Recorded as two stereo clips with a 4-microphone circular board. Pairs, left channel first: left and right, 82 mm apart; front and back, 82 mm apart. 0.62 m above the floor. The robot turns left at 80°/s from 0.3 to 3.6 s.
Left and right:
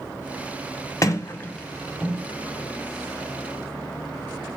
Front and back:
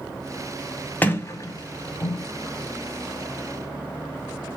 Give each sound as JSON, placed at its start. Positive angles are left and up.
{"t": 1.0, "sound": "a sliding door", "azimuth_deg": 65, "distance_m": 0.6}